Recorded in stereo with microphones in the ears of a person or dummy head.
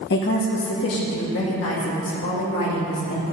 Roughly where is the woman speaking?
Left.